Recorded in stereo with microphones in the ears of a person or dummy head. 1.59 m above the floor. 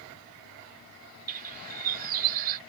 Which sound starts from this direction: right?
A bird, at 1.3 s.